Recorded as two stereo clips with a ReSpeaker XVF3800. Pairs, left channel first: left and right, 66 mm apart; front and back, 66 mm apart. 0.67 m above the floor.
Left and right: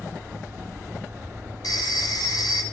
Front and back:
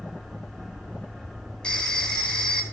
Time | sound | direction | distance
1.6 | a phone ringing | 75° left | 2 m